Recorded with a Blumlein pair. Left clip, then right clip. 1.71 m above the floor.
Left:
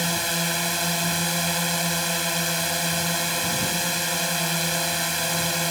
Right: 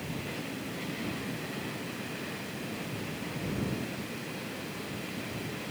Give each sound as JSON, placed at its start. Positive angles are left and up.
{"t": 0.0, "sound": "a drone", "azimuth_deg": 50}